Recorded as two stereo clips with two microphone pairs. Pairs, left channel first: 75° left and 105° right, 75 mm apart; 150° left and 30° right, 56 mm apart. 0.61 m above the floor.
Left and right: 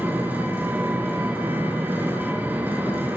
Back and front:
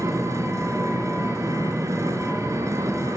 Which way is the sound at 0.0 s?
40° right.